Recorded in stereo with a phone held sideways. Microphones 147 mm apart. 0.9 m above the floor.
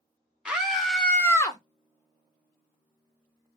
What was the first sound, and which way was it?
A scream, 5° right (ahead or behind).